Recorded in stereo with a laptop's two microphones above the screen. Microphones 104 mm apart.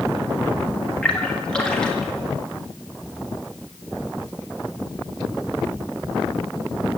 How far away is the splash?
About 1.7 m.